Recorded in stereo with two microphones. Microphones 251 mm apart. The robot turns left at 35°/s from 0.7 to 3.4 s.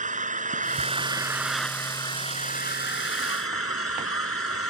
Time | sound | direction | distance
0.0 | an engine running | 150° right | ?